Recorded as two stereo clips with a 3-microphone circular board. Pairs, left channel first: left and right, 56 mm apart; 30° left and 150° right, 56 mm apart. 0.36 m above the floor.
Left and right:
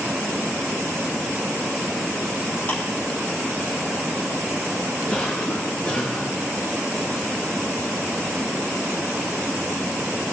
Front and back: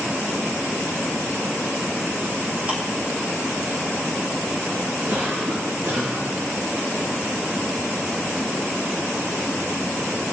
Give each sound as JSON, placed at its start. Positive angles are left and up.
{"t": 2.7, "sound": "ticking", "azimuth_deg": 150, "distance_m": 3.5}
{"t": 5.1, "sound": "a cough", "azimuth_deg": 165, "distance_m": 4.0}